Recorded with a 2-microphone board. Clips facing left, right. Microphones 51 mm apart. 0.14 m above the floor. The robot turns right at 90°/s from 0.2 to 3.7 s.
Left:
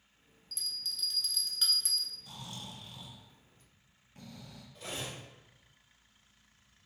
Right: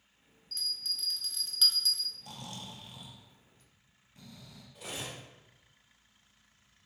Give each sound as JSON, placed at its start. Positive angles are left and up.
{"t": 0.5, "sound": "a bell", "azimuth_deg": -90, "distance_m": 0.9}
{"t": 2.2, "sound": "snoring", "azimuth_deg": -85, "distance_m": 0.6}
{"t": 4.8, "sound": "cutlery clinking", "side_deg": -10, "distance_m": 1.6}